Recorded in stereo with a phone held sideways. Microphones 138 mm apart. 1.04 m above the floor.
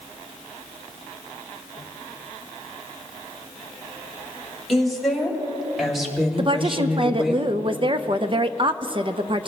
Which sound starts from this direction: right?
A woman speaking, at 6.4 s.